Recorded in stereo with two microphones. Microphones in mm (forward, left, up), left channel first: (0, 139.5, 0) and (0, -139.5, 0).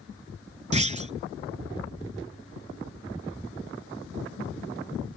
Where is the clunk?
25° right (ahead or behind).